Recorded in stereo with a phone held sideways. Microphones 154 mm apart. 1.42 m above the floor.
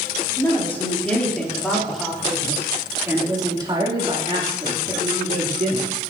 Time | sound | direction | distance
0.4 | a woman speaking | 15° left (ahead or behind) | 3.5 m